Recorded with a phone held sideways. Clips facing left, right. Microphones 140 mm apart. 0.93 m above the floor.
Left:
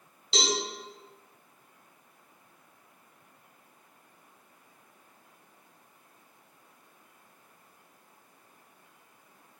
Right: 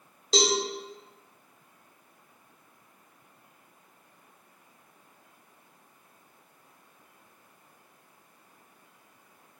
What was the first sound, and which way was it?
A cowbell, 40° right (ahead or behind).